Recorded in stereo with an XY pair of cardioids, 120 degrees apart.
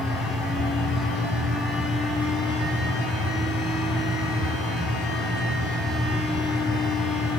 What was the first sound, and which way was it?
A fan, 65° left.